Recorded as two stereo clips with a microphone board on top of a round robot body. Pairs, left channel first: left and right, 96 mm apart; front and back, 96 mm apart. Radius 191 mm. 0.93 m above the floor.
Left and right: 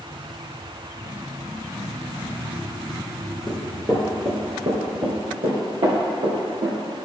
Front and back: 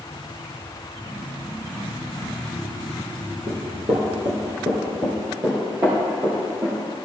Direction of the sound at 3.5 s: 155° left.